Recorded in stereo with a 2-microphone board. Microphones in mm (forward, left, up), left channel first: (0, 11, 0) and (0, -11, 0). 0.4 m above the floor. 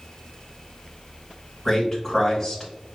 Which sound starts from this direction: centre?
A man speaking, at 1.6 s.